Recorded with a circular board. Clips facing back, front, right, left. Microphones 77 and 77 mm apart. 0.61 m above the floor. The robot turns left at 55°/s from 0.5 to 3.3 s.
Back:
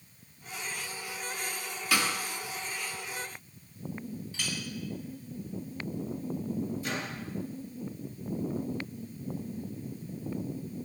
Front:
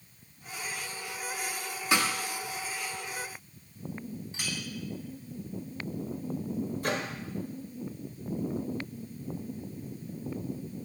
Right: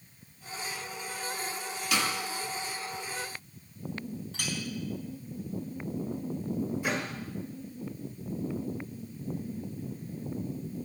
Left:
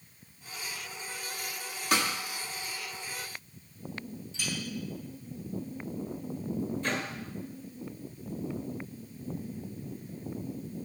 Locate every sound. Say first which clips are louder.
1.9 s a snare drum: front 2 dB, left 2 dB; 55° left, 1.7 m; by 2.1 s 45° left, 1.7 m
4.3 s a clink: back 1 dB, left 2 dB; 70° right, 3 m
6.8 s a microwave: front 4 dB, right 1 dB; 15° right, 1.7 m